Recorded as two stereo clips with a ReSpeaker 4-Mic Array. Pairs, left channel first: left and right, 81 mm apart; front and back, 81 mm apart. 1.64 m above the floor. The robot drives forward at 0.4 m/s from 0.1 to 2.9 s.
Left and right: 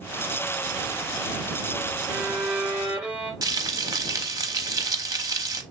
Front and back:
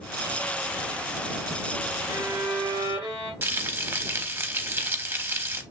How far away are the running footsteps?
No running footsteps in this recording.